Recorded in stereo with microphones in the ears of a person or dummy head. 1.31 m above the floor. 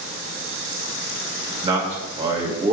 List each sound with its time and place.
1.6 s a man speaking: 25° right (ahead or behind), 2.5 m